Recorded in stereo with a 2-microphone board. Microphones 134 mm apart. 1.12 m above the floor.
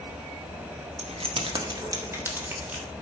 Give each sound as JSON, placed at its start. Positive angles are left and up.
{"t": 1.0, "sound": "keys jangling", "side_deg": -60, "distance_m": 1.3}